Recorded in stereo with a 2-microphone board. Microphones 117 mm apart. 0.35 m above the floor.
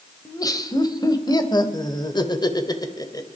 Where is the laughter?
30° left (ahead or behind), 1.7 m.